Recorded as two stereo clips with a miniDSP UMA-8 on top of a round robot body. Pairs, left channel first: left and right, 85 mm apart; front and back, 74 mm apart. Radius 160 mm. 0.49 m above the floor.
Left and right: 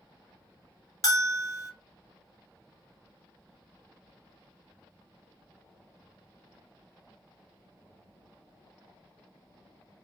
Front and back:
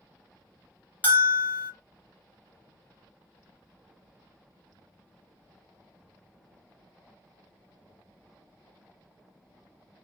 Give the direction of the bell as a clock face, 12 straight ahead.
10 o'clock.